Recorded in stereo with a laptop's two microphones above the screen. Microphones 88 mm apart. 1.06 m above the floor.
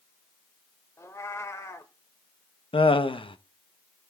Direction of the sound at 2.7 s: 70° left (ahead or behind).